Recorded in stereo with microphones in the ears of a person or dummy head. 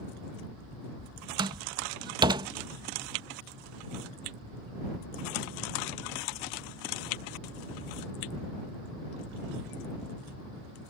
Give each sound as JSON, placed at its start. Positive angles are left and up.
{"t": 1.4, "sound": "a door slam", "side_deg": -25}